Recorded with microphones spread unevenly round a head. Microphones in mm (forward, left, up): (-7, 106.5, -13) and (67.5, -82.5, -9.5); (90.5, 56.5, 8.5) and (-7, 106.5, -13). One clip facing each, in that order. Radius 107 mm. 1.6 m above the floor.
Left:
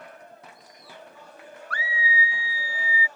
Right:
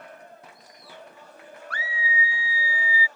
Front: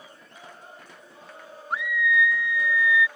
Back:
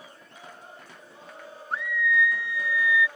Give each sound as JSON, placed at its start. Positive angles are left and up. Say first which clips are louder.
{"t": 1.7, "sound": "a scream", "louder": "left 2 dB, front 1 dB", "azimuth_deg": -90}